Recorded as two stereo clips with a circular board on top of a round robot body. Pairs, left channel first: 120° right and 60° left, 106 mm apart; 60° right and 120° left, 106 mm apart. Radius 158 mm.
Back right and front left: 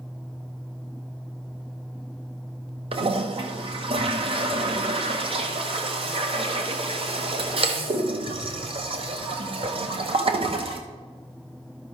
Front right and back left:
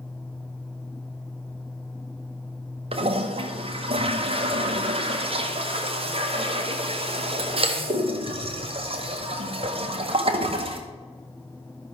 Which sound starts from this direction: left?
A toilet flushing, at 2.9 s.